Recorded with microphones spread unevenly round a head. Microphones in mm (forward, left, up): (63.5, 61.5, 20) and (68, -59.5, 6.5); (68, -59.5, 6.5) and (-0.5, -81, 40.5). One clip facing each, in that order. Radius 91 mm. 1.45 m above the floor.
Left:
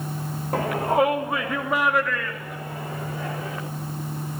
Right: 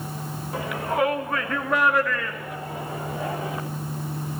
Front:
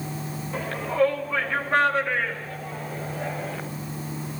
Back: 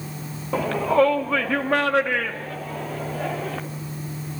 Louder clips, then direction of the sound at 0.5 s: Left 4 dB, back 6 dB; 155° left.